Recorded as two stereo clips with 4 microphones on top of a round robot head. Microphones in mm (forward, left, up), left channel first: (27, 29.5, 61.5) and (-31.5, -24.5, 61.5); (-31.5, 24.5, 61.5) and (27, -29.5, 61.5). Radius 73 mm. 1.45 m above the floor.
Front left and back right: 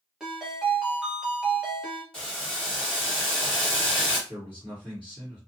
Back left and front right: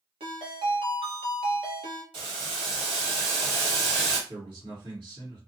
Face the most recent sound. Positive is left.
turn(degrees=-40)